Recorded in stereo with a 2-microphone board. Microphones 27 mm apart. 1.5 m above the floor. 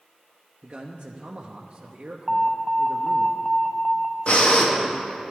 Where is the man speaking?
35° right (ahead or behind), 0.7 m.